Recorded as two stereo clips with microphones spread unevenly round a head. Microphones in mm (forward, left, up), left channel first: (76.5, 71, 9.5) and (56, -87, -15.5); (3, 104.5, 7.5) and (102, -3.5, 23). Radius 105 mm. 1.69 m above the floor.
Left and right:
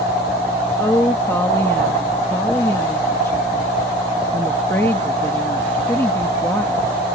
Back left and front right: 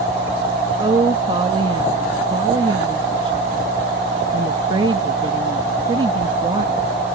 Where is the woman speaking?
10° left.